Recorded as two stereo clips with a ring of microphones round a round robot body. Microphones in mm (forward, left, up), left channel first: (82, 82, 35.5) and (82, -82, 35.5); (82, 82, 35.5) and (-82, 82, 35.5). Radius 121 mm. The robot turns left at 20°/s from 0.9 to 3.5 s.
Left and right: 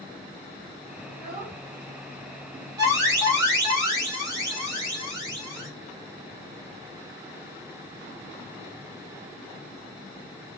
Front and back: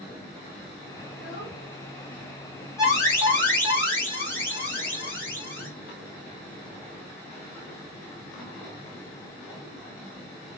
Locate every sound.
1.1 s a child speaking: 10° right, 2 m; by 2.7 s 40° right, 2 m
2.8 s an alarm: 45° right, 1.9 m; by 5.7 s 60° right, 1.9 m